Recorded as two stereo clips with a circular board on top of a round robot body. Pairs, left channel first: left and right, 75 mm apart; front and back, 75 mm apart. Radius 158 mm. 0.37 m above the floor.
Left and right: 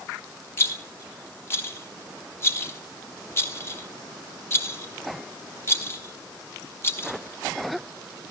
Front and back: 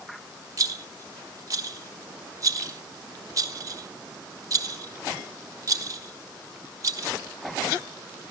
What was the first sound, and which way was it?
A rattle, 145° left.